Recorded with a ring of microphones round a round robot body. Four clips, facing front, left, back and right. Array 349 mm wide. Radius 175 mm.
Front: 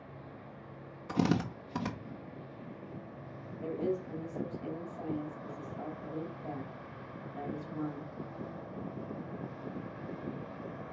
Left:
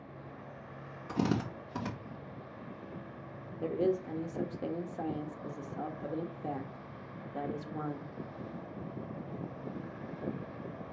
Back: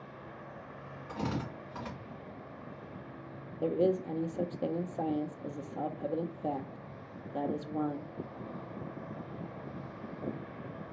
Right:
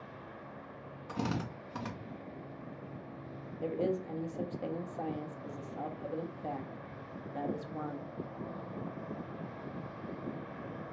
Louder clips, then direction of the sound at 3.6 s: Left 3 dB, back 6 dB; 160° left.